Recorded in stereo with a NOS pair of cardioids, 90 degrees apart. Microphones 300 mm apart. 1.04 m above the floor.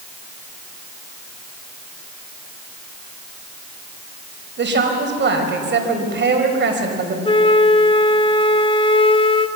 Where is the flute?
15° left, 1.0 m.